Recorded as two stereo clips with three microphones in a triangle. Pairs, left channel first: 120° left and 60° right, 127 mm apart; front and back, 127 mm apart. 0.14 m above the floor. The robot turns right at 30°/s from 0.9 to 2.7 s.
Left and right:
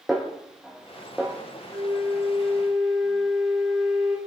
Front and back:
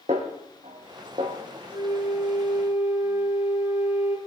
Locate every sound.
0.1 s a snare drum: 150° right, 3 m; by 1.4 s 135° right, 3 m
1.7 s a flute: 5° right, 3.5 m; by 4.2 s 25° left, 3.5 m